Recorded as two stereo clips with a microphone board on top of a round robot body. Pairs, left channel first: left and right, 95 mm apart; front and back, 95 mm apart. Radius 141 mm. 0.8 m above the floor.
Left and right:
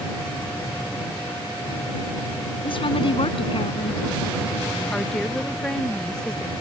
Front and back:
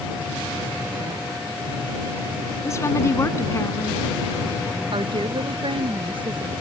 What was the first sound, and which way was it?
A woman speaking, 60° left.